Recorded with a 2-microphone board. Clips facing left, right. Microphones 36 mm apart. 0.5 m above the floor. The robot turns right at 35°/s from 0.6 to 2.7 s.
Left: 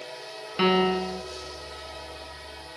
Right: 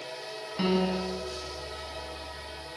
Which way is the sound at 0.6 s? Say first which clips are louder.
Left 5 dB; 45° left (ahead or behind).